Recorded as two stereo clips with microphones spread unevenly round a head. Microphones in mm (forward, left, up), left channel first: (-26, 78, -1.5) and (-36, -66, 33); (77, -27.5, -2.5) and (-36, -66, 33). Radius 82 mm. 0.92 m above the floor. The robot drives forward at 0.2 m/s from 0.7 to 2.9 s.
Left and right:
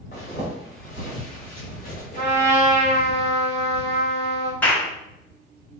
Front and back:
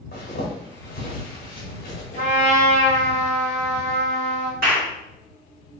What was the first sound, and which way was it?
A zipper, 35° left.